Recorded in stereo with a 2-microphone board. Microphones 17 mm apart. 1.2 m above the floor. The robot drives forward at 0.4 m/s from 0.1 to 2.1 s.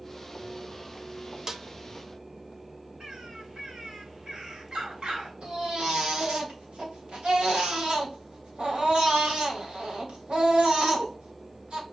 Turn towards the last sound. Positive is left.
turn(degrees=-75)  # may be behind; listen again after turning